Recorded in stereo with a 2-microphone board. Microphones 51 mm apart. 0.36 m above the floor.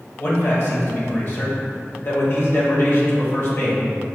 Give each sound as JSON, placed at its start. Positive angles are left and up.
{"t": 0.2, "sound": "a man speaking", "side_deg": 45, "distance_m": 1.0}